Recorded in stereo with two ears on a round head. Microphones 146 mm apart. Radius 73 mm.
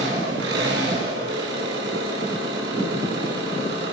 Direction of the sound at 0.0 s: 80° right.